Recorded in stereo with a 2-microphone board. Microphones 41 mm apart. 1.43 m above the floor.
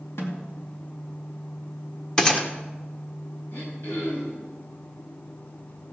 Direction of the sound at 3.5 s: 60° left (ahead or behind).